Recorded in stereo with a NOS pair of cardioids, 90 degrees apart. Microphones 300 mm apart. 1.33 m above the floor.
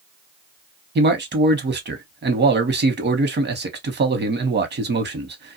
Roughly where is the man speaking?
Ahead right.